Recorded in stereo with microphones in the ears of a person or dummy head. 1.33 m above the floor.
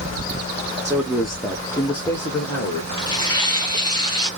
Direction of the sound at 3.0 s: 25° left (ahead or behind).